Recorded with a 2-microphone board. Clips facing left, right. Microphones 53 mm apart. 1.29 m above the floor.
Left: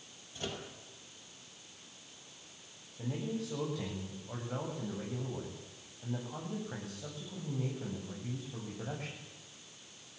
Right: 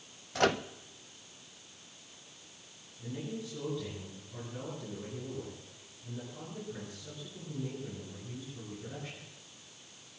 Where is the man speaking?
75° left (ahead or behind), 9 m.